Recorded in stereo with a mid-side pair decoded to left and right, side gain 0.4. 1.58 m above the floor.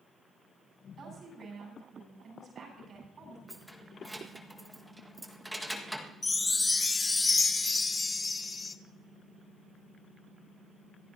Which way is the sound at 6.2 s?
25° left.